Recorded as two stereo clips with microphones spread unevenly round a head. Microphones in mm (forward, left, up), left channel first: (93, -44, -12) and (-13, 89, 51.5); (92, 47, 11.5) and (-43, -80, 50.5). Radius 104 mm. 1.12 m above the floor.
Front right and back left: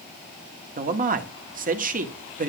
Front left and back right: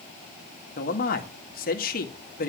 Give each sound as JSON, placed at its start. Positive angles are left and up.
{"t": 0.8, "sound": "a man speaking", "azimuth_deg": 85, "distance_m": 2.0}